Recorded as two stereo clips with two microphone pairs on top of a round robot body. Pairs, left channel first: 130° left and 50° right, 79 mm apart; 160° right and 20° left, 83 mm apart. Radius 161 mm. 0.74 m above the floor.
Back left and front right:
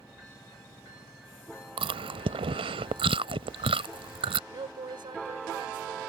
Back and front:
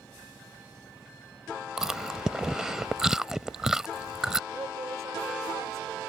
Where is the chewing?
55° right.